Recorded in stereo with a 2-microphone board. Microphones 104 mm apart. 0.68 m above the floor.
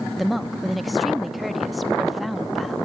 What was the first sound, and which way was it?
A woman speaking, centre (ahead or behind).